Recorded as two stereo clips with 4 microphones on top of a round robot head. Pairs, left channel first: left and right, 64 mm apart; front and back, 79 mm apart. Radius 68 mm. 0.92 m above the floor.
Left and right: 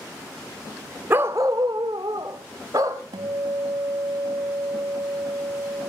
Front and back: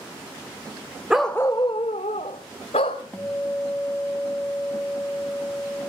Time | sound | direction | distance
1.1 | a dog barking | 110° right | 0.6 m
3.1 | a guitar | 80° right | 0.7 m